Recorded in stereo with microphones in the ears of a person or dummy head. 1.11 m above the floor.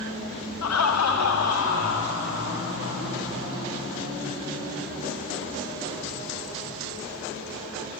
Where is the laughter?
80° left, 1.1 m; by 4.1 s 55° left (ahead or behind), 4 m.